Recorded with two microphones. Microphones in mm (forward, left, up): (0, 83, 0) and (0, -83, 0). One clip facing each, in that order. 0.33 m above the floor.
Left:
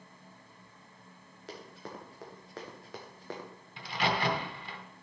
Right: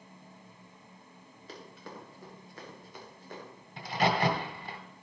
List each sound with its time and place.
1.5 s running footsteps: 70° left (ahead or behind), 4.5 m; by 3.5 s 85° left, 3 m
3.8 s a crack: 40° right (ahead or behind), 2 m